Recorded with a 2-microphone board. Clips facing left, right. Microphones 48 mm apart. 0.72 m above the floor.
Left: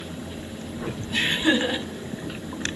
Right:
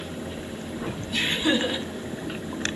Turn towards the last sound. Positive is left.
turn(degrees=20)  # may be behind; listen again after turning